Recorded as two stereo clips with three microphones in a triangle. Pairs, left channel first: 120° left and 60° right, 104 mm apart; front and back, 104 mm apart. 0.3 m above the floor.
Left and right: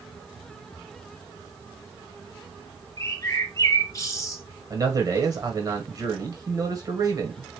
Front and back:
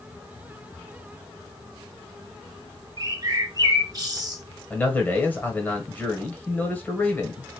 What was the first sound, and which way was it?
A bird, 160° left.